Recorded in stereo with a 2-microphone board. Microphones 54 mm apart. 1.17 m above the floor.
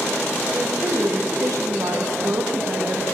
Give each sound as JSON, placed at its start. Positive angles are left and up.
{"t": 0.5, "sound": "a woman speaking", "side_deg": -80, "distance_m": 1.3}